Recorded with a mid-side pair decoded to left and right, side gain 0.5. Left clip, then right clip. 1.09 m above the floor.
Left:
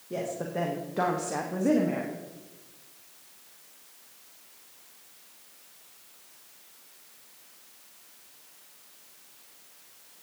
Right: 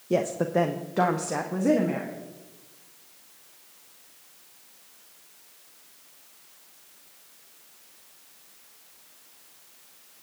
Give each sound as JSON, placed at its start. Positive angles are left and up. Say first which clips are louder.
{"t": 0.1, "sound": "a woman speaking", "louder": "right 8 dB", "azimuth_deg": -65, "distance_m": 0.8}